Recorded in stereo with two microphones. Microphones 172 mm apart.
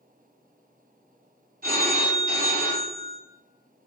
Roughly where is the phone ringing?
Right.